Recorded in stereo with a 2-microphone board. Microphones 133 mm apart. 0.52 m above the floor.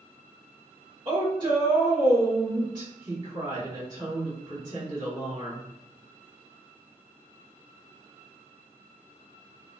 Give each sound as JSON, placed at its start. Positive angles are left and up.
{"t": 1.1, "sound": "a woman speaking", "side_deg": -35, "distance_m": 1.4}